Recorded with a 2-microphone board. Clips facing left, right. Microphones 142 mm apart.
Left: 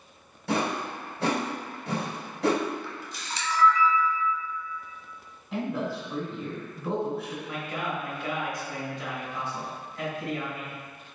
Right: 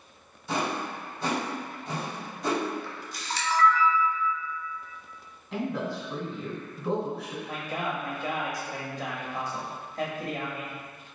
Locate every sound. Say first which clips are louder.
0.5 s a whoosh: left 2 dB; 80° left, 1.3 m
2.8 s a camera shutter: right 1 dB; 55° right (ahead or behind), 1.1 m
5.5 s a man speaking: left 1 dB; centre (ahead or behind), 1.1 m
7.5 s a man speaking: right 2 dB; 45° right (ahead or behind), 1.1 m